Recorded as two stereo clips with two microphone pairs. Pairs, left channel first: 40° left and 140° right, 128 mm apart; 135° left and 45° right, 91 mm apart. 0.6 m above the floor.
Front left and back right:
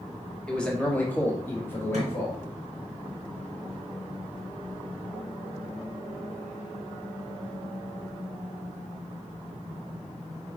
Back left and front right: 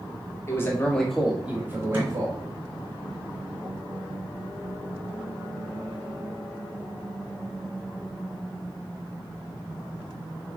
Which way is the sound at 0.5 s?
120° left.